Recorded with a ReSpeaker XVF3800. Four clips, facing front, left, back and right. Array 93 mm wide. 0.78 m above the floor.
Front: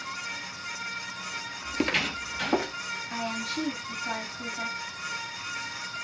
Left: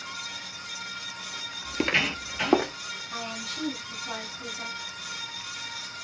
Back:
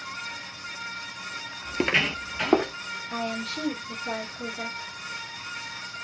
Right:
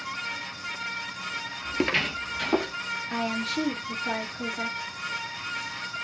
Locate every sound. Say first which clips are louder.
1.6 s footsteps: even, back 3 dB; 105° right, 0.8 m; by 2.7 s 130° left, 1.6 m
3.1 s a woman speaking: right 8 dB, back 2 dB; 85° right, 2 m